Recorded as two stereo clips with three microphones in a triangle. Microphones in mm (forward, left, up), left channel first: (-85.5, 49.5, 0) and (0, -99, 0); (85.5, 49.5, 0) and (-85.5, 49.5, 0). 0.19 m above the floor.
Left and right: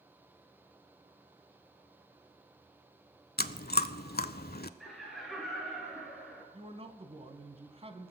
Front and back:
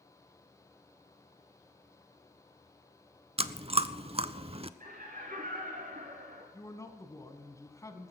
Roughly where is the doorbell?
No doorbell in this recording.